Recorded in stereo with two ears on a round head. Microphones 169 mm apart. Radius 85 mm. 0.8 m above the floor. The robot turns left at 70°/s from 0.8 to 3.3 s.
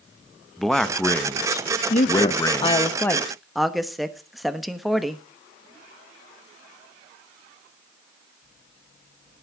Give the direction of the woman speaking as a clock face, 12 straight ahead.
9 o'clock.